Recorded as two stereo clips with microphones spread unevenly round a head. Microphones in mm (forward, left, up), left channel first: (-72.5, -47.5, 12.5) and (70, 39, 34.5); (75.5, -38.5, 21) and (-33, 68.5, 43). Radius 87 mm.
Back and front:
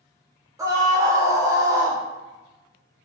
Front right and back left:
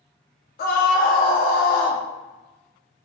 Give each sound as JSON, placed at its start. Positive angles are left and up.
{"t": 0.6, "sound": "a scream", "azimuth_deg": -45, "distance_m": 0.5}